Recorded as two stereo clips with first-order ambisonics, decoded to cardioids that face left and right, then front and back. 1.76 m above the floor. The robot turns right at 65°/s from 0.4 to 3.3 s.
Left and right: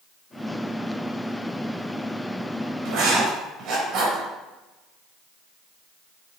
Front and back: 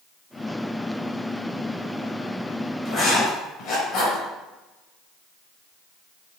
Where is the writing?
75° right, 3.5 m; by 4.2 s 45° right, 3.5 m.